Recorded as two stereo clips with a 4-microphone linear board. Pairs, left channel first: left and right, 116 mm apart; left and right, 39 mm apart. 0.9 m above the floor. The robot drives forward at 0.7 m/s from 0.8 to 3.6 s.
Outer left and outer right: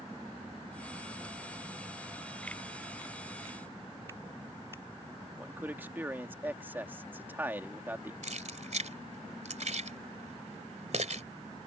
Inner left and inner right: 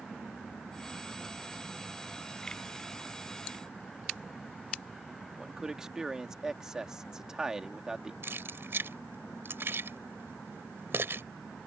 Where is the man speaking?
15° right (ahead or behind).